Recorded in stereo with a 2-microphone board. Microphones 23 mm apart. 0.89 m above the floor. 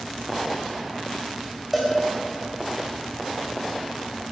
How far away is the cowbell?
About 4.5 m.